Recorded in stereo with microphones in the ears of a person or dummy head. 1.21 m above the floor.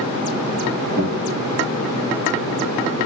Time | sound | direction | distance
1.0 | a guitar | 65° right (ahead or behind) | 2 m